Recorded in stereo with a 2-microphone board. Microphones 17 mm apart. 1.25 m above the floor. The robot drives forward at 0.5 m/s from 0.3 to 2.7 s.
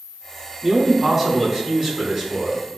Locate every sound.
0.6 s a man speaking: 25° right (ahead or behind), 3 m; by 2.8 s 15° right (ahead or behind), 4 m